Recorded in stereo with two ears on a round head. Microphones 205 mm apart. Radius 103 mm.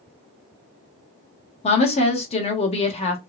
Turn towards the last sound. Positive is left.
turn(degrees=30)  # may be behind; listen again after turning